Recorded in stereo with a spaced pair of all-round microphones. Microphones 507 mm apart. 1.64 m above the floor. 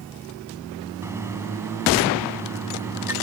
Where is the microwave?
5° right (ahead or behind).